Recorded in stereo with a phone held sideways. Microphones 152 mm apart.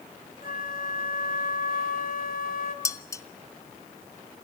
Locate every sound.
0.4 s a flute: 70° left (ahead or behind), 2.5 m
2.9 s dishes clattering: 20° left (ahead or behind), 0.9 m